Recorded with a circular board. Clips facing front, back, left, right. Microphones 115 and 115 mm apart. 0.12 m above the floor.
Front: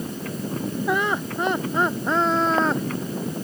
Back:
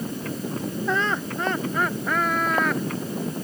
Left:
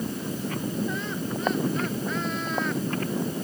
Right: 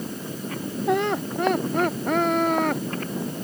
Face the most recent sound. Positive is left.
turn(degrees=-60)